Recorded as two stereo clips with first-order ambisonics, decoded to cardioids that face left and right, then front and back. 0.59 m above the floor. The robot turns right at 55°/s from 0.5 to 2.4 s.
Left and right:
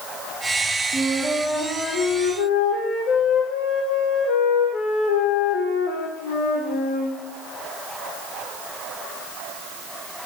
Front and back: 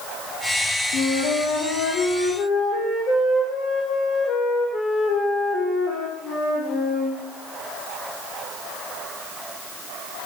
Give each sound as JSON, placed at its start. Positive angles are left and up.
{"t": 0.9, "sound": "a flute", "azimuth_deg": -20, "distance_m": 6.0}